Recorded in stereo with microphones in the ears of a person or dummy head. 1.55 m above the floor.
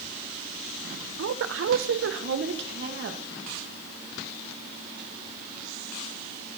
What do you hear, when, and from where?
1.2 s a woman speaking: 75° right (ahead or behind), 0.7 m; by 3.2 s 60° right (ahead or behind), 2.0 m